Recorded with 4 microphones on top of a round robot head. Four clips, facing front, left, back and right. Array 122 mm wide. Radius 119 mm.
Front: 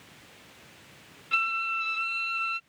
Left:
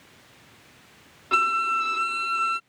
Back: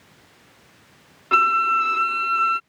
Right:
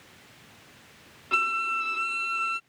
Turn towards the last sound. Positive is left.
turn(degrees=170)